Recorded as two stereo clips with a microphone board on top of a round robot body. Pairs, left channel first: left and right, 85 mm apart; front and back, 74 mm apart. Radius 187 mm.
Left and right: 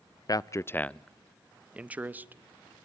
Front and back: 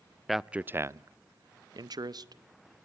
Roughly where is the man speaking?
Left.